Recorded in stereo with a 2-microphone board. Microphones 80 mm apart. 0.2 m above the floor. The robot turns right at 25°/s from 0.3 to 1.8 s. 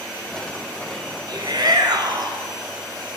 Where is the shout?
60° right (ahead or behind), 2.5 m.